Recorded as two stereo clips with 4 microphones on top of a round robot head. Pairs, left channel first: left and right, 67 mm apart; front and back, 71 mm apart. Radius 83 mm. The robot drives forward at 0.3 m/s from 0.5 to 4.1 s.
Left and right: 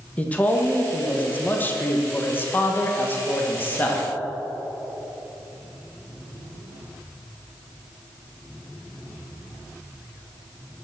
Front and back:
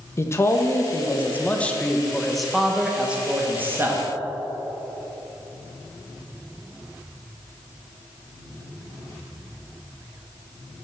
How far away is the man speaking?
About 1.0 m.